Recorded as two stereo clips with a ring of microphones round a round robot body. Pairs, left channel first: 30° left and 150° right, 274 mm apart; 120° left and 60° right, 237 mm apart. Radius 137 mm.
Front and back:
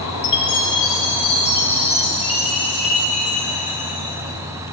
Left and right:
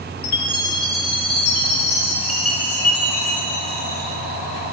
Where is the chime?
95° left, 1.3 m.